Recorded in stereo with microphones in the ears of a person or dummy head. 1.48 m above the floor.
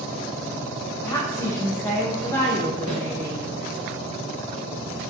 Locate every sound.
1.0 s a woman speaking: 15° left (ahead or behind), 0.5 m
2.9 s a snare drum: 15° left (ahead or behind), 1.1 m